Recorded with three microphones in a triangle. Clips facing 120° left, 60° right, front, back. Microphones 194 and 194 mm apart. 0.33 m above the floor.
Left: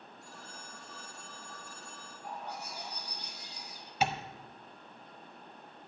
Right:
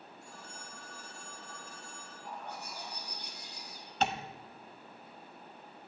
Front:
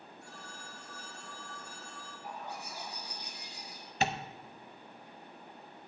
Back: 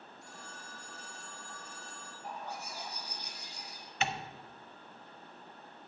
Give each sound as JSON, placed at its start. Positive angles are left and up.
{"t": 0.2, "sound": "a phone ringing", "azimuth_deg": 30, "distance_m": 4.0}
{"t": 2.2, "sound": "a bird", "azimuth_deg": 130, "distance_m": 4.5}
{"t": 4.0, "sound": "tapping", "azimuth_deg": 40, "distance_m": 0.7}